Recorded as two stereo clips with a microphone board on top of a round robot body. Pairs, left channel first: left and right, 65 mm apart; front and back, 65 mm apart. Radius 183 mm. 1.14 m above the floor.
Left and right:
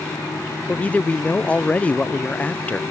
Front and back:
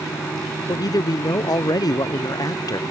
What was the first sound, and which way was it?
A man speaking, 20° left.